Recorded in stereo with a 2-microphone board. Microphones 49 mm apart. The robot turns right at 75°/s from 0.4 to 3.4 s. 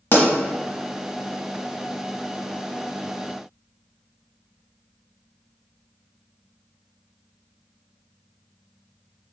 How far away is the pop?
About 1.0 m.